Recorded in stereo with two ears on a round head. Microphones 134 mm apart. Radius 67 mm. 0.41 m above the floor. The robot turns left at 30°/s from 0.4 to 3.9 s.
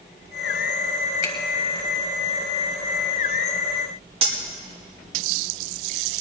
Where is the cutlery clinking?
40° right (ahead or behind), 1.6 m.